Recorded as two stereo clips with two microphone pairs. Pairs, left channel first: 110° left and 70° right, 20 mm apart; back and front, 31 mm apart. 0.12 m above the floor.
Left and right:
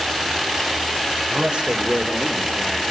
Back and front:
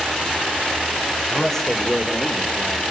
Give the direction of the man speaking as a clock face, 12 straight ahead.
3 o'clock.